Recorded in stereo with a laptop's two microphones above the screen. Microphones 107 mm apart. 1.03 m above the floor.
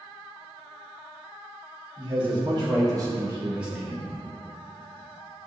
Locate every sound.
2.0 s a man speaking: 45° right (ahead or behind), 1.8 m; by 4.2 s 20° left (ahead or behind), 0.8 m